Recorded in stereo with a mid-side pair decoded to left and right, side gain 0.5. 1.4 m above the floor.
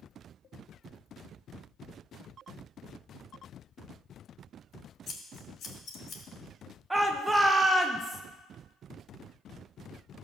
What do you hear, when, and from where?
5.1 s scissors: 50° left, 2.5 m
6.9 s a shout: 10° right, 1.0 m